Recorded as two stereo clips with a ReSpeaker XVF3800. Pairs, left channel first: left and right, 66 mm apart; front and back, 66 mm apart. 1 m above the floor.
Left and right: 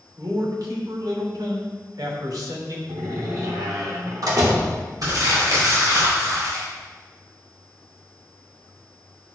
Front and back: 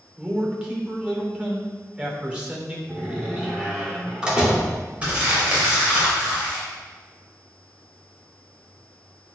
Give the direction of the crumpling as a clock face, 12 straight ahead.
4 o'clock.